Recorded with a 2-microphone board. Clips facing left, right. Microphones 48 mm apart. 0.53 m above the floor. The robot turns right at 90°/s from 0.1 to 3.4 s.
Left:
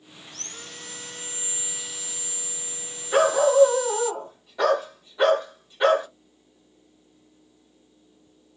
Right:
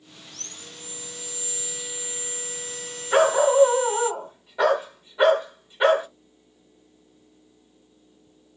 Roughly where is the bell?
I don't hear a bell.